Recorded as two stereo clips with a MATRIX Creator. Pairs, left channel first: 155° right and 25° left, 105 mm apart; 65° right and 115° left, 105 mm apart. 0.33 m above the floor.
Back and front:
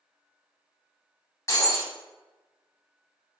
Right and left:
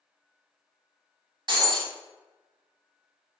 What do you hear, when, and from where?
1.5 s breaking glass: 145° left, 0.8 m